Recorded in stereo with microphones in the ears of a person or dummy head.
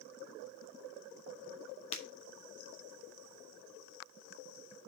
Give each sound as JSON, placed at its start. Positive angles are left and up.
{"t": 1.9, "sound": "breaking glass", "side_deg": 35, "distance_m": 1.9}